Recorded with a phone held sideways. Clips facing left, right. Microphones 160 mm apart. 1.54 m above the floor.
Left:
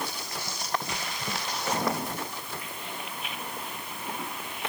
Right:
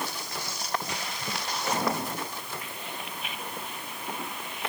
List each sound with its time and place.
Only background noise.